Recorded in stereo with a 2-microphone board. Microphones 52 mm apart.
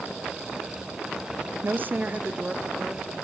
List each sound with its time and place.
1.6 s a woman speaking: 40° right (ahead or behind), 0.9 m; by 3.1 s 10° right (ahead or behind), 2.5 m